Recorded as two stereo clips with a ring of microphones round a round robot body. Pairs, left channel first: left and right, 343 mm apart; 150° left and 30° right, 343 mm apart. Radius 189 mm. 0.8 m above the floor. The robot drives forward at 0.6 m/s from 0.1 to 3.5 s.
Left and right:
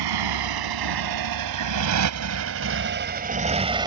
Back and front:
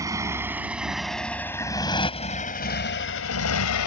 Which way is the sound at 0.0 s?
110° right.